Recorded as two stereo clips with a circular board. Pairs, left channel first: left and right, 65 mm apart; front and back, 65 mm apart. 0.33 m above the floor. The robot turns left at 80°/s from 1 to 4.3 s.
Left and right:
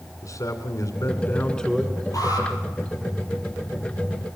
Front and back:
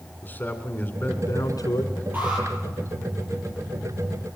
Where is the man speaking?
60° left, 3 m; by 2.0 s 20° right, 3 m.